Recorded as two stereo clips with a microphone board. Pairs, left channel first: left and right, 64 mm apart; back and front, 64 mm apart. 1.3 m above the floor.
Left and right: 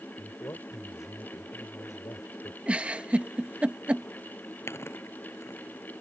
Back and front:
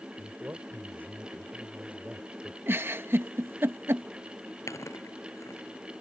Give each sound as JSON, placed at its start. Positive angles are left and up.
{"t": 0.2, "sound": "a man speaking", "azimuth_deg": 50}
{"t": 2.7, "sound": "a giggle", "azimuth_deg": -30}
{"t": 4.7, "sound": "chewing", "azimuth_deg": 140}